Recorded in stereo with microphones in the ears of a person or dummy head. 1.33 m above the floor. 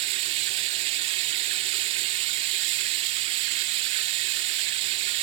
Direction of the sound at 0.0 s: 30° right (ahead or behind).